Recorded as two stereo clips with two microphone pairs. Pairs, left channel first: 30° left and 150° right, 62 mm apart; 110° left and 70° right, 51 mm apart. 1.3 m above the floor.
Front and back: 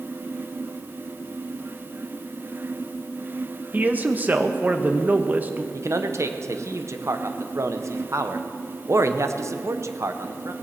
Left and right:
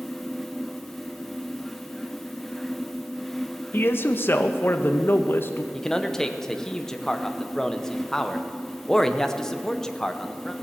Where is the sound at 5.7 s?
Straight behind, 0.8 m.